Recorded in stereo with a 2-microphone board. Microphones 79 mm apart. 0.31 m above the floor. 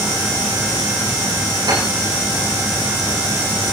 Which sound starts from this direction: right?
A piano, at 1.7 s.